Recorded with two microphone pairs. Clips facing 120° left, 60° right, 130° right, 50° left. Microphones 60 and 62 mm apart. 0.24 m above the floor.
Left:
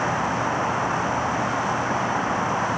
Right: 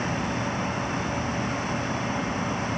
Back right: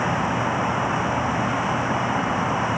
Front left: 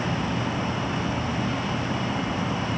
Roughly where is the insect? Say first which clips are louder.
Left 5 dB, back right 5 dB; behind.